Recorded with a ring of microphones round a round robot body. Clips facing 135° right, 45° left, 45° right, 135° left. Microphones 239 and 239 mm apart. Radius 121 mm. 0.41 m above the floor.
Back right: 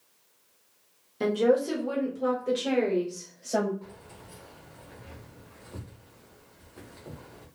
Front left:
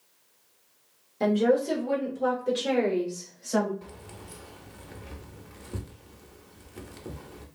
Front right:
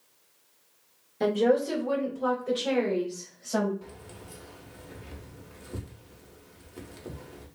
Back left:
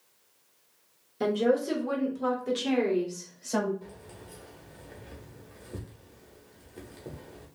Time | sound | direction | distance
1.2 | a woman speaking | 165° right | 1.2 m
3.8 | keys jangling | 30° left | 0.7 m